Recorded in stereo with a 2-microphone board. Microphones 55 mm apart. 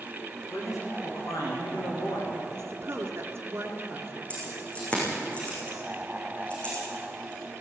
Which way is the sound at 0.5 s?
75° left (ahead or behind).